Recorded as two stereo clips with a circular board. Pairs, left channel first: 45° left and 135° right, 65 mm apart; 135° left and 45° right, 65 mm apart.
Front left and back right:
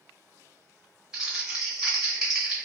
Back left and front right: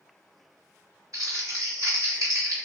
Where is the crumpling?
55° right, 1.8 m.